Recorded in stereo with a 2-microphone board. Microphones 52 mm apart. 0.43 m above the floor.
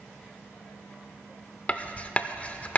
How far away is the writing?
About 0.5 m.